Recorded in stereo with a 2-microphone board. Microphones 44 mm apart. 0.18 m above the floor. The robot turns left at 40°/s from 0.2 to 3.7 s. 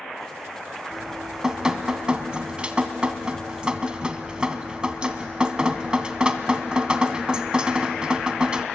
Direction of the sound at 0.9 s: 5° right (ahead or behind).